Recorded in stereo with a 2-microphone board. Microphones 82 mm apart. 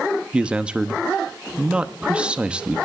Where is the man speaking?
15° right (ahead or behind), 0.8 m.